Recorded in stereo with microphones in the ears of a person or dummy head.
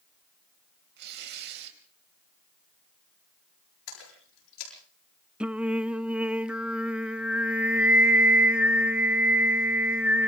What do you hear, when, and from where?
1.0 s tearing paper: 60° right (ahead or behind), 4.5 m
3.9 s a splash: 85° left, 10 m
5.4 s singing: 5° right (ahead or behind), 0.6 m